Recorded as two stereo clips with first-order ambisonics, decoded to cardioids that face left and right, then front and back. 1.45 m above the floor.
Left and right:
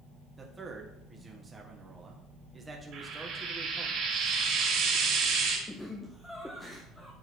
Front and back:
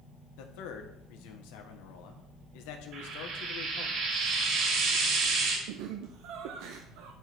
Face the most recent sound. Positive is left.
turn(degrees=175)